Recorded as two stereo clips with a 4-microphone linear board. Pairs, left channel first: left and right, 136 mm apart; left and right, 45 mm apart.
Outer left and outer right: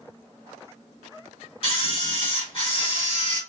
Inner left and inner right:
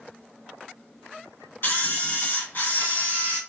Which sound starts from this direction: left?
A camera shutter, at 1.6 s.